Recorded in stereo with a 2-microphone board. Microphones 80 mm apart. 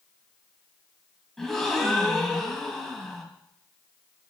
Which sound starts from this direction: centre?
A gasp, at 1.4 s.